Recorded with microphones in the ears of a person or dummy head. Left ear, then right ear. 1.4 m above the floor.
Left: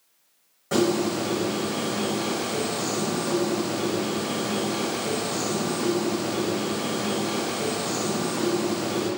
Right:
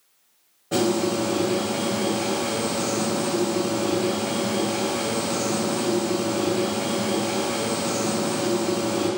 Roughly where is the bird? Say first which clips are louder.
Right 1 dB; left.